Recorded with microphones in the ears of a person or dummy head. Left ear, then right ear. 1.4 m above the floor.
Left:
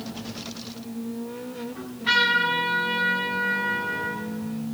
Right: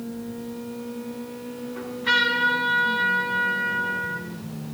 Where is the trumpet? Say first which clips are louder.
Even; 10° right (ahead or behind), 8.5 m.